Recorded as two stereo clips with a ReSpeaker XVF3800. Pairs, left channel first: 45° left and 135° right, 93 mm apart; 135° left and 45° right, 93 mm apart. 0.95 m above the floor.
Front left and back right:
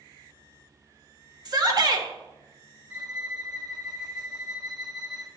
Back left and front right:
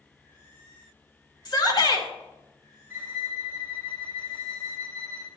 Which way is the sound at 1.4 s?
Straight behind.